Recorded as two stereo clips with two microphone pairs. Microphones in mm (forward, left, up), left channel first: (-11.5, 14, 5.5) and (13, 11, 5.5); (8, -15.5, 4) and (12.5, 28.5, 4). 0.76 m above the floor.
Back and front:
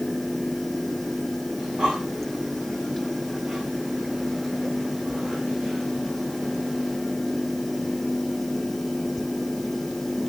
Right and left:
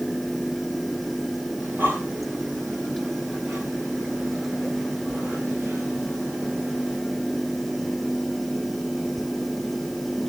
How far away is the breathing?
About 5 m.